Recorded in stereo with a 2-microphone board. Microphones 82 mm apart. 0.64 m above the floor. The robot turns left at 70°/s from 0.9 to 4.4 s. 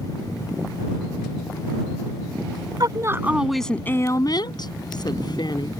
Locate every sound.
2.8 s a woman speaking: 130° right; by 5.7 s 120° left